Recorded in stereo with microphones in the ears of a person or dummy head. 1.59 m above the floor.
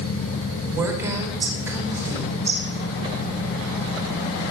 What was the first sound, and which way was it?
A woman speaking, 10° right (ahead or behind).